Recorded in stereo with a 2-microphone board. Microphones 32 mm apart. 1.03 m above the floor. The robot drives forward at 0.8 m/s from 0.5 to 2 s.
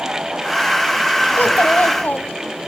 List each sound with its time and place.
1.4 s a child speaking: 75° left (ahead or behind), 1.0 m; by 2.4 s 55° left (ahead or behind), 1.3 m